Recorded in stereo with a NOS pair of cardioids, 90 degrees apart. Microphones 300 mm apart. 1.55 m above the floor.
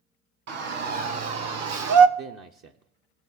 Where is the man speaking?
50° right, 0.6 m.